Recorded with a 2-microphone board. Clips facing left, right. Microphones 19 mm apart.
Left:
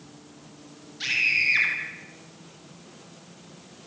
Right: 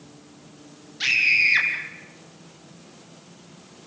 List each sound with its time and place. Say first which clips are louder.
1.0 s a scream: right 4 dB; 20° right (ahead or behind), 4.5 m